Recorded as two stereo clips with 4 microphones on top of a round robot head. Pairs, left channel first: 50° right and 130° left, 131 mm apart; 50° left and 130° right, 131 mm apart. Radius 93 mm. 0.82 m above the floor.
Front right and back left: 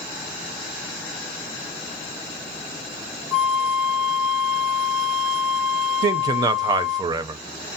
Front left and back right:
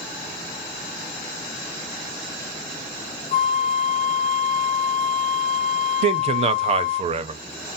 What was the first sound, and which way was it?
A flute, 45° left.